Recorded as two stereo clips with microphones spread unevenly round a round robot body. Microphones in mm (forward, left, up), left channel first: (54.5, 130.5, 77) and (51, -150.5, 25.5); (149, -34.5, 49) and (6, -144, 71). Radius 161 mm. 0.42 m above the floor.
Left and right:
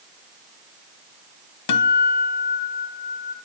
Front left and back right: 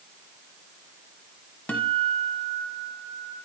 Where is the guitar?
125° left, 1.0 m.